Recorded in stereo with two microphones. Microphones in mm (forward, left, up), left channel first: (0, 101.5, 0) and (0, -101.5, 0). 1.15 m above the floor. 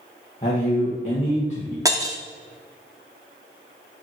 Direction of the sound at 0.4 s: 35° left (ahead or behind).